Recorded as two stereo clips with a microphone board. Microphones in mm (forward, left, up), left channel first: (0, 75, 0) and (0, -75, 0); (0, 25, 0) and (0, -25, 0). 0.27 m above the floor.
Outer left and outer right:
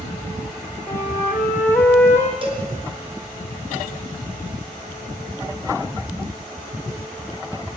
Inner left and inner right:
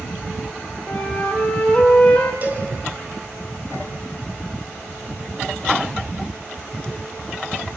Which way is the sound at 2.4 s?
35° right (ahead or behind).